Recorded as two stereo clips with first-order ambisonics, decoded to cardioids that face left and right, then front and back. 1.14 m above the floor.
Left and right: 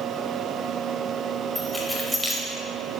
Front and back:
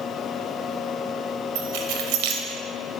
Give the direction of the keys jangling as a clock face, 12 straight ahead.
6 o'clock.